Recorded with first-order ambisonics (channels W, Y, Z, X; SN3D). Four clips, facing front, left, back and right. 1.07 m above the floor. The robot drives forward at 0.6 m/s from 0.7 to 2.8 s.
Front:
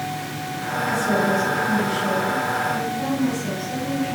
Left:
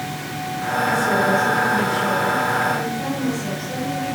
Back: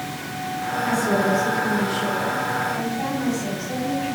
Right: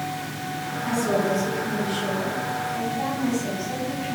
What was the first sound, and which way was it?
A woman speaking, 140° right.